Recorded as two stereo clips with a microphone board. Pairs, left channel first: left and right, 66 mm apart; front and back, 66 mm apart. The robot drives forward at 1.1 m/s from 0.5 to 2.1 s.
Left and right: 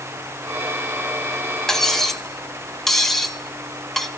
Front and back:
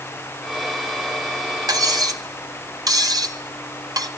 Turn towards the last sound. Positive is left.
turn(degrees=175)